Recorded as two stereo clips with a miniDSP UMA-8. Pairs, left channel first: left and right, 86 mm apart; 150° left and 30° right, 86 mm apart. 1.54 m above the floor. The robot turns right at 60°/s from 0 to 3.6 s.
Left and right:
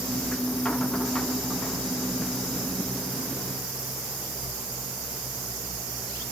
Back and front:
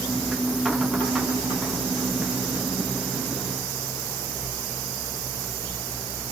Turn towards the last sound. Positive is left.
No sound to turn to.